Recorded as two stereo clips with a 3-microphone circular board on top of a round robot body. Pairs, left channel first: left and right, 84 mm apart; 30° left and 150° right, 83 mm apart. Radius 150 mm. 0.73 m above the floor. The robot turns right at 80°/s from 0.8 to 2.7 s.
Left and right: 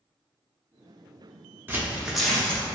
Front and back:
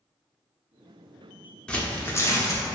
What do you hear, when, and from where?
1.7 s tearing paper: 40° right, 0.8 m; by 2.6 s 35° left, 0.8 m